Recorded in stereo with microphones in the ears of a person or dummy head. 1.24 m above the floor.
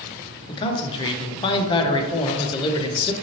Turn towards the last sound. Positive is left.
turn(degrees=25)  # may be behind; listen again after turning